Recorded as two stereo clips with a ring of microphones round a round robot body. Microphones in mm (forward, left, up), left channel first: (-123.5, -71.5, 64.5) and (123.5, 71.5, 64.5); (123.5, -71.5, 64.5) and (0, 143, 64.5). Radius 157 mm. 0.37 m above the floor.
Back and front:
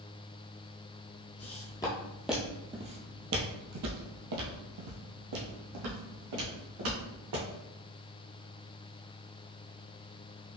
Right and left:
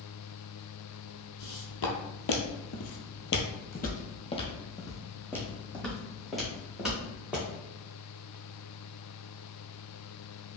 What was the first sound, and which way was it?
Footsteps, 80° right.